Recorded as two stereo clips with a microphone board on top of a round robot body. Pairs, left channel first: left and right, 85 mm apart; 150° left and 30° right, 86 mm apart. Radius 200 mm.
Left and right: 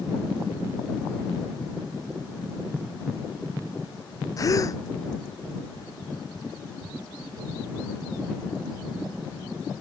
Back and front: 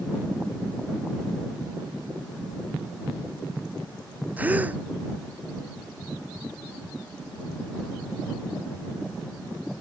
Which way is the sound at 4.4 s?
40° left.